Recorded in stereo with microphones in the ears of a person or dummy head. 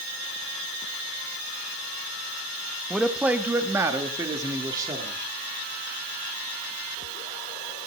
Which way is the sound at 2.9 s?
Centre (ahead or behind).